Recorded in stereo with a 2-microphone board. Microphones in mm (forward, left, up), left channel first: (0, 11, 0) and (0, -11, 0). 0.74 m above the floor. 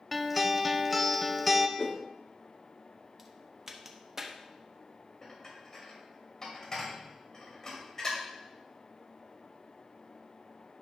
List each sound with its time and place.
0.1 s a guitar: centre (ahead or behind), 0.6 m
1.8 s a whoosh: 40° left (ahead or behind), 0.9 m
3.2 s a crack: 20° right (ahead or behind), 0.9 m
5.2 s dishes clattering: 20° left (ahead or behind), 2.5 m